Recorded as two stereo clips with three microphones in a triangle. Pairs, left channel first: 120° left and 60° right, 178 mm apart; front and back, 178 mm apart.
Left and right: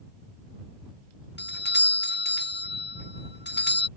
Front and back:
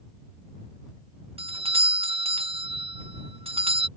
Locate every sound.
1.4 s a doorbell: 120° left